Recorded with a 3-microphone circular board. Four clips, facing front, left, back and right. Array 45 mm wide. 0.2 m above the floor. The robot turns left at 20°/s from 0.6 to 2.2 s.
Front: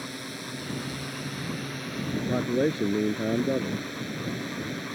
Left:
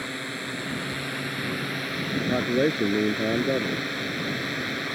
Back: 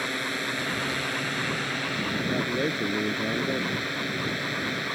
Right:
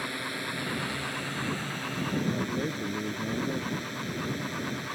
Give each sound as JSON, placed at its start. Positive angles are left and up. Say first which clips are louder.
{"t": 0.0, "sound": "a drone", "louder": "left 1 dB, back 8 dB", "azimuth_deg": 170}
{"t": 2.2, "sound": "a man speaking", "louder": "left 9 dB, front 4 dB", "azimuth_deg": 75}